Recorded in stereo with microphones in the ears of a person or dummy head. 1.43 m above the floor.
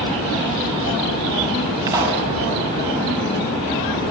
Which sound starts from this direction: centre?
A pop, at 1.9 s.